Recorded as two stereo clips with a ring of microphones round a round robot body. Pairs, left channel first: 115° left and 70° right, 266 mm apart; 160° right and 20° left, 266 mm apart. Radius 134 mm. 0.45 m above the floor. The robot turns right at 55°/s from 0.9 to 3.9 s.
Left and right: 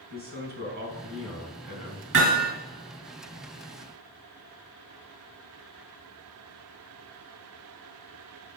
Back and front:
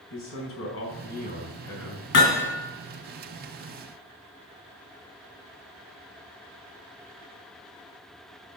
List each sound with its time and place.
0.1 s a man speaking: 120° right, 4.5 m; by 2.0 s 60° right, 4.5 m
2.1 s hammering: 115° right, 3 m; by 2.5 s 90° right, 3 m